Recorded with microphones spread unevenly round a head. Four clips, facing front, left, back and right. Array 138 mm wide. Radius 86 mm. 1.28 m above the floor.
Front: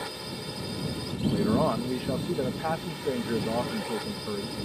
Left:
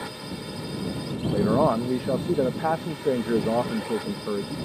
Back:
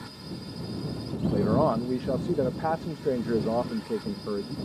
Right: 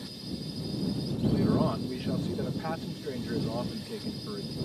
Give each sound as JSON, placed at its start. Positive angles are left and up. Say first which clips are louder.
{"t": 0.0, "sound": "a drone", "louder": "left 4 dB, front 3 dB", "azimuth_deg": 50}
{"t": 1.3, "sound": "a man speaking", "louder": "left 7 dB, back 2 dB", "azimuth_deg": 110}